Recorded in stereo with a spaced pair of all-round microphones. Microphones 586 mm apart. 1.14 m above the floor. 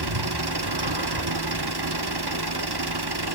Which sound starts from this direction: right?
An engine running, at 0.0 s.